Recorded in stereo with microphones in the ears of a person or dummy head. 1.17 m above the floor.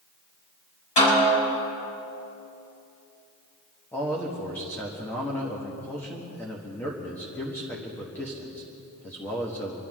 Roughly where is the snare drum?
Left.